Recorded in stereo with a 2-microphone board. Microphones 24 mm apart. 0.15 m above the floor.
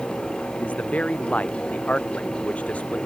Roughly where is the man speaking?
Left.